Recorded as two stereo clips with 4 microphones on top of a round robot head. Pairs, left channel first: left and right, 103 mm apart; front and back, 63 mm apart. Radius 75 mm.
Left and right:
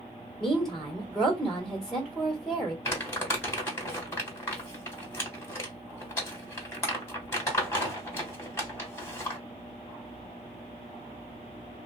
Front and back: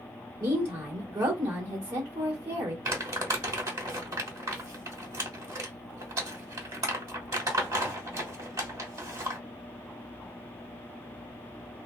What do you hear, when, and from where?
0.4 s a woman speaking: straight behind, 1.8 m
2.9 s crumpling: 155° left, 1.8 m